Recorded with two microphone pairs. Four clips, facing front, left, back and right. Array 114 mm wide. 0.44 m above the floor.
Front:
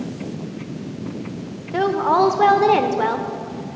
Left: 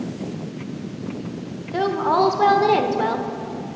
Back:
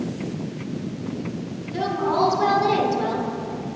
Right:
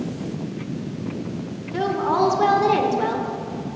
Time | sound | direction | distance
1.7 | a woman speaking | 20° left | 1.5 m